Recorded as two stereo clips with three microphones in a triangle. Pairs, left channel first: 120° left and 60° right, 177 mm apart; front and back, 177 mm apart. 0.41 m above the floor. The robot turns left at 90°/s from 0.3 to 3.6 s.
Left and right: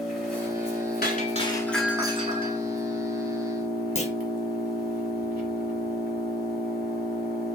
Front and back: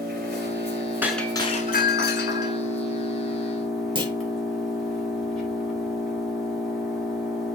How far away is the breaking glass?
About 0.9 m.